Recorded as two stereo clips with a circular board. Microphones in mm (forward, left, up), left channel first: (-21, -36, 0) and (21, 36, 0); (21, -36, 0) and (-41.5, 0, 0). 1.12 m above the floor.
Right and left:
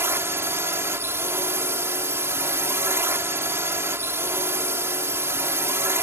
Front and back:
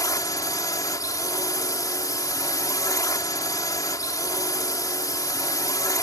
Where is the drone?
Straight ahead.